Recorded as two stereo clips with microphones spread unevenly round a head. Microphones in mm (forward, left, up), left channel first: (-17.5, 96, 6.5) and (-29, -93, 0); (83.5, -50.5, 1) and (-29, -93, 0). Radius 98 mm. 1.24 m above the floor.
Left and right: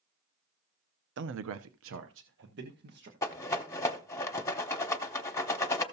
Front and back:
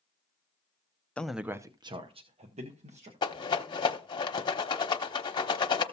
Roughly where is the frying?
I don't hear frying.